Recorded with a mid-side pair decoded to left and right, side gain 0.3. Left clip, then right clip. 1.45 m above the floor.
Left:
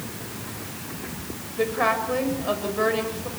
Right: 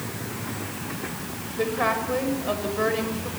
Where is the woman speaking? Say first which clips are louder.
Left 2 dB; 15° left, 7.5 m.